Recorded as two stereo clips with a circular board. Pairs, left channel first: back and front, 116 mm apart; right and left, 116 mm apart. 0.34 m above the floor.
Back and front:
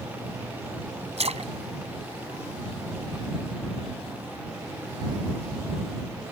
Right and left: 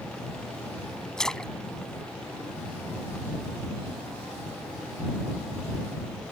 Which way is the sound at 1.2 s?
5° right.